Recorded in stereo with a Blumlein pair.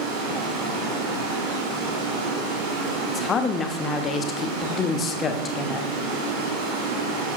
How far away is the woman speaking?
About 0.8 m.